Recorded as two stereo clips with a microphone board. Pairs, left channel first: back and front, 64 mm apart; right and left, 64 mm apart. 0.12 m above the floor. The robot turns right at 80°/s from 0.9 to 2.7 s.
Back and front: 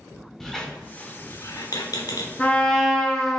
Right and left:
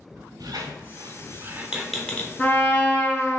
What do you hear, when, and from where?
0.4 s a squeak: 95° left, 0.7 m; by 3.3 s 125° right, 0.7 m
2.4 s a trumpet: 130° right, 0.6 m; by 3.4 s 105° right, 0.6 m